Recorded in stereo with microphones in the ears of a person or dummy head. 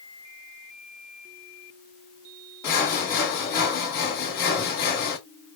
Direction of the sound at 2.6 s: 15° left (ahead or behind).